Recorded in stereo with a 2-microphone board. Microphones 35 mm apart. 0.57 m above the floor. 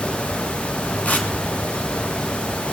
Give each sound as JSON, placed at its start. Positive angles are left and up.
{"t": 1.1, "sound": "tearing paper", "side_deg": 45, "distance_m": 2.5}